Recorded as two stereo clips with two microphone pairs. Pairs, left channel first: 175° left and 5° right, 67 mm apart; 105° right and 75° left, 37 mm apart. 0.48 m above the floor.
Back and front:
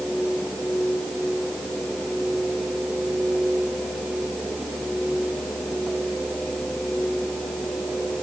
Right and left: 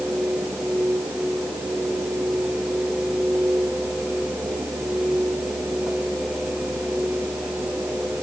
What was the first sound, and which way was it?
Only background noise.